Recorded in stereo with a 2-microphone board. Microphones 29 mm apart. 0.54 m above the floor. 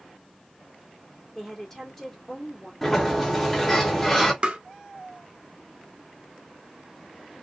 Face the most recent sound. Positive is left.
turn(degrees=-35)  # may be behind; listen again after turning